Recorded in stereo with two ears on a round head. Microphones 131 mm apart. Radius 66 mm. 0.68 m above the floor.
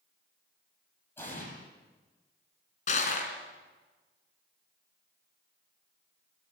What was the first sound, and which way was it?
An explosion, 15° left (ahead or behind).